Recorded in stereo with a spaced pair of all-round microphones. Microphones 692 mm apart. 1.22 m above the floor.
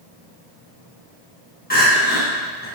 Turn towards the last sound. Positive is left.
turn(degrees=15)  # may be behind; listen again after turning